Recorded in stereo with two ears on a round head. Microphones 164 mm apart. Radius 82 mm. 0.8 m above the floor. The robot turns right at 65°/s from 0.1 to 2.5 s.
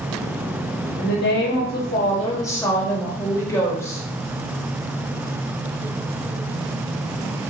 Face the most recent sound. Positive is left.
turn(degrees=160)